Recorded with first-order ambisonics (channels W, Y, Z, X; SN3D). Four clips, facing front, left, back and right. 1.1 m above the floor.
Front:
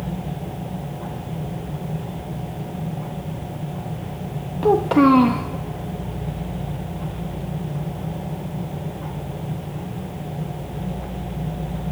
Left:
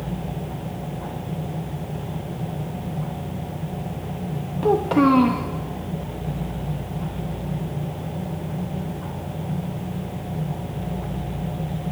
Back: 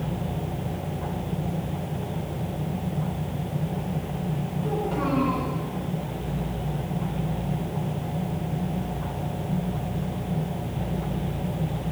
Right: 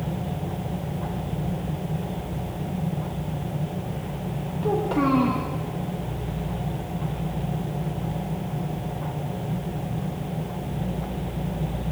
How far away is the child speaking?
About 1.1 m.